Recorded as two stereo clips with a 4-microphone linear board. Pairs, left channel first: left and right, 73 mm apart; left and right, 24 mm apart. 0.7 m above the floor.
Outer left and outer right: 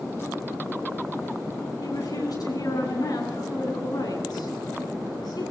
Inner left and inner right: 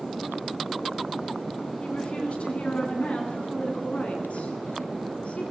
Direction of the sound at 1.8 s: 60° left (ahead or behind).